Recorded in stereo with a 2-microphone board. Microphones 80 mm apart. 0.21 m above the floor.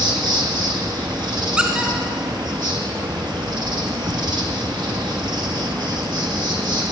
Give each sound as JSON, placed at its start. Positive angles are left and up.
{"t": 0.0, "sound": "an insect", "side_deg": -75, "distance_m": 1.6}
{"t": 1.6, "sound": "a squeak", "side_deg": -15, "distance_m": 1.4}